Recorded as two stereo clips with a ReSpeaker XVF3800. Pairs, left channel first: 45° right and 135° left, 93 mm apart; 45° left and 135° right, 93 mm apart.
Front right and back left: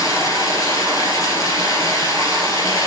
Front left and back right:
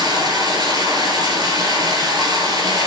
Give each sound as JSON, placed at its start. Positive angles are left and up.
{"t": 0.0, "sound": "running water", "azimuth_deg": -95, "distance_m": 3.0}